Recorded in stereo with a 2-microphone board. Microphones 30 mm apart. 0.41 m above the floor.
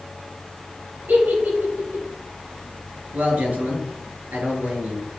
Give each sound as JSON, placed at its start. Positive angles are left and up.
{"t": 1.1, "sound": "a giggle", "side_deg": -85, "distance_m": 4.0}
{"t": 3.1, "sound": "a man speaking", "side_deg": -60, "distance_m": 4.0}